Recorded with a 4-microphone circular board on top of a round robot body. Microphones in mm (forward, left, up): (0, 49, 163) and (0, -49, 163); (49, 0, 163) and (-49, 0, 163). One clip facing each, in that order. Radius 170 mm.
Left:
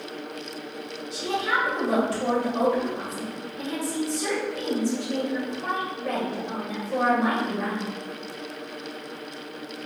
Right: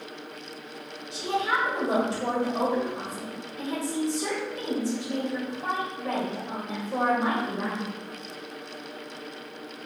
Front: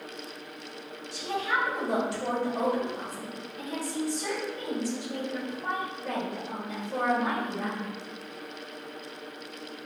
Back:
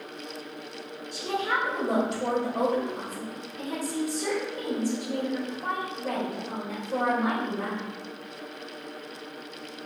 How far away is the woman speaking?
About 1.4 m.